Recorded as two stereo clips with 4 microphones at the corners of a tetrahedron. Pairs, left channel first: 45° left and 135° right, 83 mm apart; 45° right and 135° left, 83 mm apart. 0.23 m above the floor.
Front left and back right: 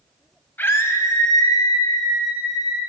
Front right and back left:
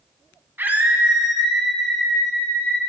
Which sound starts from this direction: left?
A scream, at 0.6 s.